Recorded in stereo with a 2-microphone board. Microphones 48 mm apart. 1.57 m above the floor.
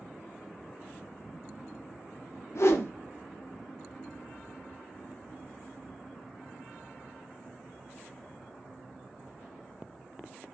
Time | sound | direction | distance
2.5 | a whoosh | 65° left (ahead or behind) | 0.6 m